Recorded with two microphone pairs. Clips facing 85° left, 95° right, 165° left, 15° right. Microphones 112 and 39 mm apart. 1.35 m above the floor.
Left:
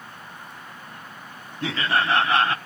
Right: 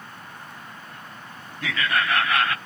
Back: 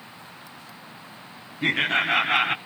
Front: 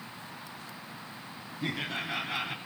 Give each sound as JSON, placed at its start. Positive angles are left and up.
{"t": 1.6, "sound": "laughter", "azimuth_deg": 145, "distance_m": 0.5}